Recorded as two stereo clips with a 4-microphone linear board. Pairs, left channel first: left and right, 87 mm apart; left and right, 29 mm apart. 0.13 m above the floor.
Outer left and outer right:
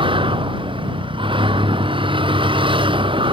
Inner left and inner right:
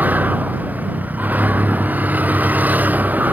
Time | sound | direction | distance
0.0 | a vehicle | 75° right (ahead or behind) | ?